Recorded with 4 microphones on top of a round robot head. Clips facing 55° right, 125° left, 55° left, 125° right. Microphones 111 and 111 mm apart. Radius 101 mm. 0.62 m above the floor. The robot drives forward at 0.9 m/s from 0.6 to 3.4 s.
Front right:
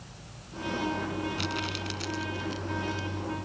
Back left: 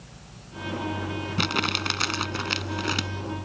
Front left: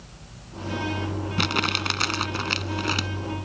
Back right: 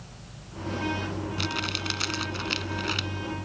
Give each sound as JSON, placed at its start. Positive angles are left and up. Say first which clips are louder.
{"t": 1.4, "sound": "crumpling", "louder": "back left 5 dB, front left 5 dB", "azimuth_deg": 90}